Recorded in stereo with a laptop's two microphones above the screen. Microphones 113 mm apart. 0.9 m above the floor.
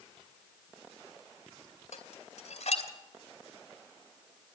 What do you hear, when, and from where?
1.9 s dishes clattering: 85° left, 2.5 m